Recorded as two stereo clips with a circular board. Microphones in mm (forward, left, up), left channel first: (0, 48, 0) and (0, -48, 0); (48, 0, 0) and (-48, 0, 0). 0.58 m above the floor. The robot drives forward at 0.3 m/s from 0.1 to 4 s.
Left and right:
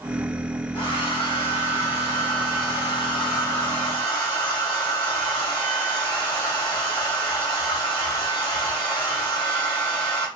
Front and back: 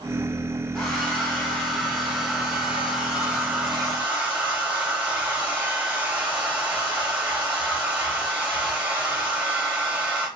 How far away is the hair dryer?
About 1.6 m.